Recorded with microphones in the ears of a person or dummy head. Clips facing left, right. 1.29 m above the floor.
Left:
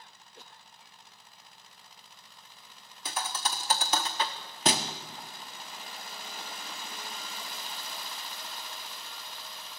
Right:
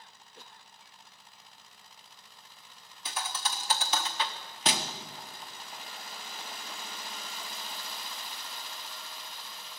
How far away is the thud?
About 1.0 m.